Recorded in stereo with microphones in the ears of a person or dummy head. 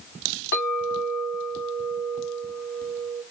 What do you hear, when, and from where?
0.5 s a clink: 50° left (ahead or behind), 2 m